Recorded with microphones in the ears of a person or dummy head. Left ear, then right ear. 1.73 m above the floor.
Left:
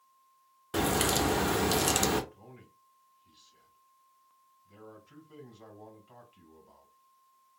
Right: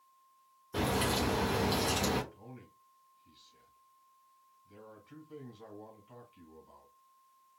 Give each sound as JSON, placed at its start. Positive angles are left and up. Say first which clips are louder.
{"t": 0.7, "sound": "a crack", "louder": "left 4 dB", "side_deg": 45, "distance_m": 0.8}
{"t": 2.3, "sound": "a man speaking", "louder": "right 1 dB", "side_deg": 15, "distance_m": 1.8}